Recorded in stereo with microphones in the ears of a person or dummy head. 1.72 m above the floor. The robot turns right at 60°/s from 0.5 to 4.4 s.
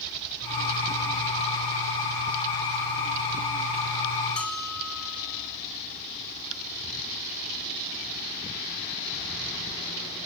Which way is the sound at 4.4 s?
5° left (ahead or behind).